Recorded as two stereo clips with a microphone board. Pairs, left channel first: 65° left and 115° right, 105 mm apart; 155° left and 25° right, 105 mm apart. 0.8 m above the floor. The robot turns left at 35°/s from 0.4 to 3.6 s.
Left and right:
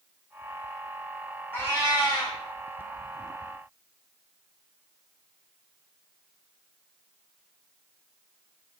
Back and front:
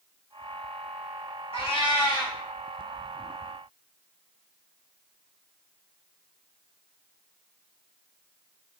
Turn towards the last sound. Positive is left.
turn(degrees=60)